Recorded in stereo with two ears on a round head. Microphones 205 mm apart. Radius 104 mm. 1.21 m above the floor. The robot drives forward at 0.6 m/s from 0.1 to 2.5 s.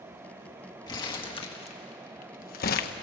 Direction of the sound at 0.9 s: 20° left (ahead or behind).